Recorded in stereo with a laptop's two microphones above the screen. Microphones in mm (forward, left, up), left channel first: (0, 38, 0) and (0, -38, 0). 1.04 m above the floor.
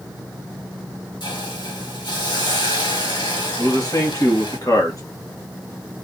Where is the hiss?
80° left, 1.6 m.